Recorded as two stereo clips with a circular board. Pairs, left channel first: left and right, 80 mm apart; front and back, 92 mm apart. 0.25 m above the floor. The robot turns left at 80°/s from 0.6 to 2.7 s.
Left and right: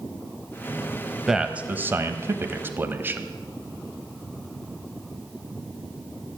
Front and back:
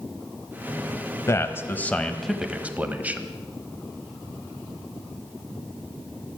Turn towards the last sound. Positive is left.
turn(degrees=-125)